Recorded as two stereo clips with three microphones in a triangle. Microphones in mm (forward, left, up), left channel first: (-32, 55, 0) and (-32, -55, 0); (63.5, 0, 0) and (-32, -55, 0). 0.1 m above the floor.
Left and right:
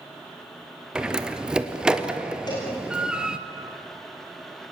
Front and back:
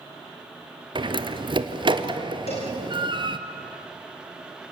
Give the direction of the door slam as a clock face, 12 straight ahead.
6 o'clock.